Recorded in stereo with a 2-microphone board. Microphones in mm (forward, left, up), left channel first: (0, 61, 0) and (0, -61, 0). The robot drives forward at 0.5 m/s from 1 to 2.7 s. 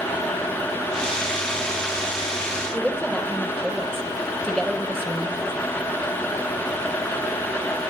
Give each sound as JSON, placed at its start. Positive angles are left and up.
{"t": 2.7, "sound": "a woman speaking", "side_deg": 5, "distance_m": 3.5}